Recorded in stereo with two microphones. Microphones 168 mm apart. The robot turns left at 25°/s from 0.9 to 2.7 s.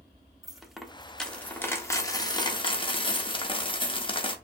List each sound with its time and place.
0.4 s a dropped coin: straight behind, 0.8 m; by 4.3 s 135° left, 0.8 m